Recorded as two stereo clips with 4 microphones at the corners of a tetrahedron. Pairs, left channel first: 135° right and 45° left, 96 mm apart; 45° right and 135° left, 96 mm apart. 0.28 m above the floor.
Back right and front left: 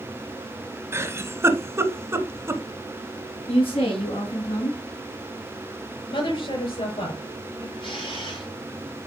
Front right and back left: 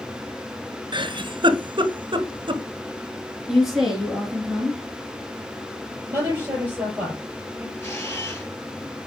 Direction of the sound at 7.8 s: 110° right.